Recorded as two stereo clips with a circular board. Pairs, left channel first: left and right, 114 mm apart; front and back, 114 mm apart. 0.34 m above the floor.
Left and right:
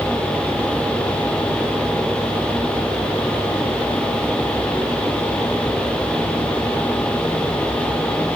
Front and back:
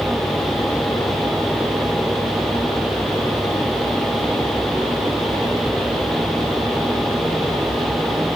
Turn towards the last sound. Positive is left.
No sound to turn to.